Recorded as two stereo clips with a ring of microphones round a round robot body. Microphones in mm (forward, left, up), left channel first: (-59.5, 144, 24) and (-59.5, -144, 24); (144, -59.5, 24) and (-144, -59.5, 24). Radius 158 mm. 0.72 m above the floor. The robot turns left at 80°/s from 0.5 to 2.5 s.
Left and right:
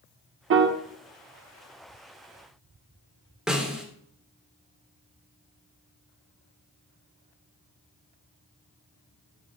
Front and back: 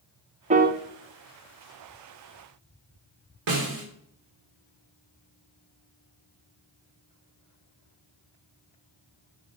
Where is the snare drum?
175° right, 3 m.